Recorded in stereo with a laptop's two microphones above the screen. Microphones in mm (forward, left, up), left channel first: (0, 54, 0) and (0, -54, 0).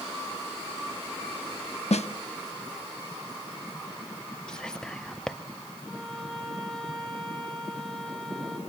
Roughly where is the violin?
Centre.